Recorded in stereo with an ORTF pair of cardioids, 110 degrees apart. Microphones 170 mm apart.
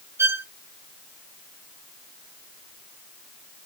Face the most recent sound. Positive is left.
turn(degrees=-15)